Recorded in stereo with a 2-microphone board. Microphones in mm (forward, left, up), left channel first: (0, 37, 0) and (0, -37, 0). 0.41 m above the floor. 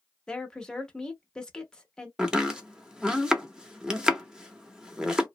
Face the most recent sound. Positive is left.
turn(degrees=-10)  # may be behind; listen again after turning